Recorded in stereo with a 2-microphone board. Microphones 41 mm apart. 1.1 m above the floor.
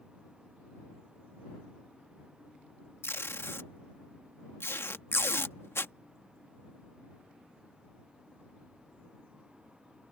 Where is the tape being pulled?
85° left.